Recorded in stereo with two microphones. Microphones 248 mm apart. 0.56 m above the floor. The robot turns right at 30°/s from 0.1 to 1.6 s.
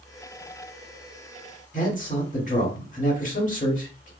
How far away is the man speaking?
About 1.4 m.